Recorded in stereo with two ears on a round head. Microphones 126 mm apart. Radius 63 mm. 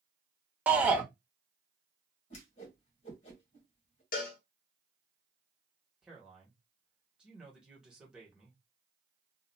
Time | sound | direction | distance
0.7 | a shout | 10° right (ahead or behind) | 0.9 m
2.3 | a whoosh | 45° left (ahead or behind) | 1.6 m
4.1 | a cowbell | 70° left (ahead or behind) | 0.9 m
6.0 | a man speaking | 5° right (ahead or behind) | 1.5 m